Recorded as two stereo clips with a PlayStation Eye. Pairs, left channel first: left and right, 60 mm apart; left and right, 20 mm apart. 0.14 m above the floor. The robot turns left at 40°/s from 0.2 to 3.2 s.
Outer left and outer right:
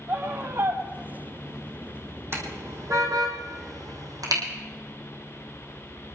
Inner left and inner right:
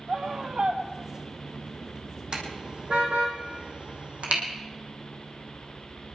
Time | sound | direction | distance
0.1 | a scream | 25° right (ahead or behind) | 5.5 m
2.3 | a car horn | 45° right (ahead or behind) | 3 m